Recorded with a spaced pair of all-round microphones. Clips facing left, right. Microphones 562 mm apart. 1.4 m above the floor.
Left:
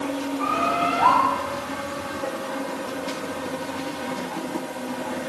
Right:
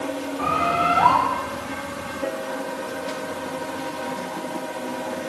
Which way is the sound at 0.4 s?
80° right.